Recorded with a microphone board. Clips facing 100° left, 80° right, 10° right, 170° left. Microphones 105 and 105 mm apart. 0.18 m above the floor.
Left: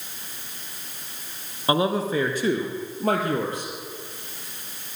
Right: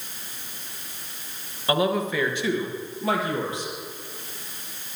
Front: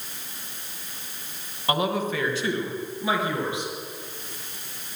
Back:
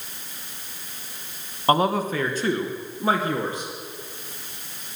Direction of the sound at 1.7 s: 150° left.